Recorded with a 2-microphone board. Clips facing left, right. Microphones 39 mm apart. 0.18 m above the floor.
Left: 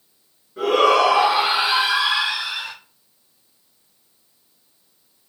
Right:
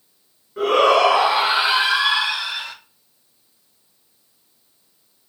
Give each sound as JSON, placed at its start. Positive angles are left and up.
{"t": 0.6, "sound": "a shout", "side_deg": -30, "distance_m": 1.8}